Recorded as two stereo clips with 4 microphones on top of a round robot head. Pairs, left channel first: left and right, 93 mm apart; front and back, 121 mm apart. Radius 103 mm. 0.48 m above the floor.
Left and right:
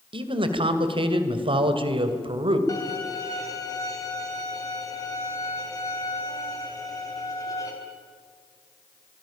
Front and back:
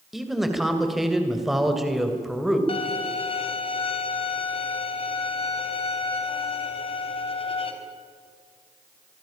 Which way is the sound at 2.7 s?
35° left.